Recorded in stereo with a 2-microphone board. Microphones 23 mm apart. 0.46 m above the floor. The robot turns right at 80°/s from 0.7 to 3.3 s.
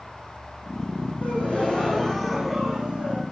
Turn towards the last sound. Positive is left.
turn(degrees=-110)